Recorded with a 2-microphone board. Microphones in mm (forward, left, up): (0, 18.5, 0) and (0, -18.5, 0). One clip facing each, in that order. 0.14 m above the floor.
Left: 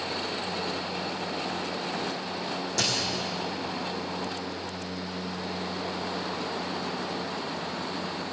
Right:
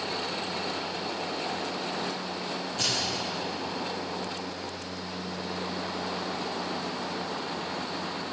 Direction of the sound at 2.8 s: 75° left (ahead or behind).